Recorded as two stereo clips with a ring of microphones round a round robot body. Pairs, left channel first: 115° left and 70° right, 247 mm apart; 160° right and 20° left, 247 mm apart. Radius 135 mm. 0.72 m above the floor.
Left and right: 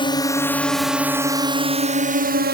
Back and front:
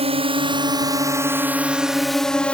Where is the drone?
60° left; by 2.5 s 75° right.